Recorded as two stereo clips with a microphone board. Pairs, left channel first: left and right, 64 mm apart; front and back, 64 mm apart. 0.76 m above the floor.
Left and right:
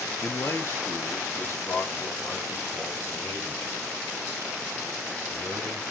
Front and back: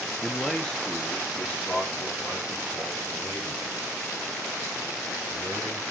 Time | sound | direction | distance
0.2 | a man speaking | 90° left | 0.7 m